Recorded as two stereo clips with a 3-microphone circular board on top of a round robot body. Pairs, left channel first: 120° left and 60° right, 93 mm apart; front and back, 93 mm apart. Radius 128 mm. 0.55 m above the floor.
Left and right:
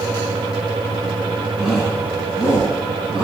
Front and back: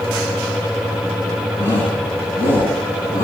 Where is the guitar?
I don't hear a guitar.